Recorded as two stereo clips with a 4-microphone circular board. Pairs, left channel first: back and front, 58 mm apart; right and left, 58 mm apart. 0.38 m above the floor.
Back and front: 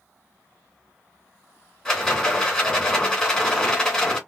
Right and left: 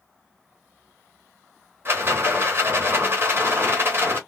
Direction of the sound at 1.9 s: 110° left.